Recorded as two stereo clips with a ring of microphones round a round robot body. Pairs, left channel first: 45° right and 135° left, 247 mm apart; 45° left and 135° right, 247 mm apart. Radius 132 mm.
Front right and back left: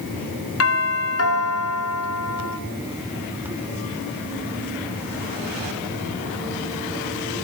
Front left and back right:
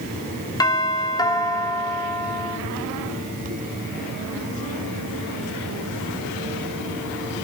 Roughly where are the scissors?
I don't hear scissors.